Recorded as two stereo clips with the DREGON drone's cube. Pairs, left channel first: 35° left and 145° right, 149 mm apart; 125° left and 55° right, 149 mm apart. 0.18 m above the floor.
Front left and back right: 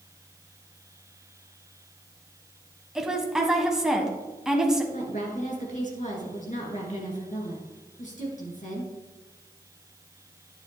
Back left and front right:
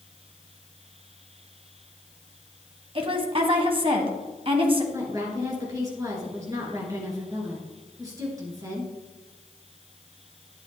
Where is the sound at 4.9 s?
10° left, 3 m.